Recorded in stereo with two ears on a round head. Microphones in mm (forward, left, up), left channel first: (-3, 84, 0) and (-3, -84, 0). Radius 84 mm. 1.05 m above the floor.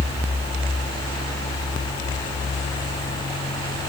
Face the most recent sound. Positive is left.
No sound to turn to.